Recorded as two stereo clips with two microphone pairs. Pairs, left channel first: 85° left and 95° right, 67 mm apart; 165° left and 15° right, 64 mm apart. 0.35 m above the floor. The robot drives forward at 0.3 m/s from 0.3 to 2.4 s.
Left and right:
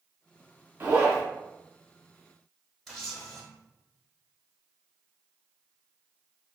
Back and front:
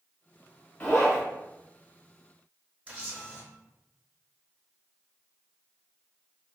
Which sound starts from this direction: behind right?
A zipper, at 0.8 s.